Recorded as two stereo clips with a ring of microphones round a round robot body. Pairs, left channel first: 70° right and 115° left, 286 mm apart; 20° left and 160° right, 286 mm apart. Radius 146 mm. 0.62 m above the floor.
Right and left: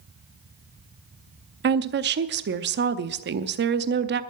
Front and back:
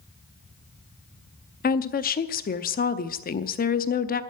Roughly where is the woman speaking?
Left.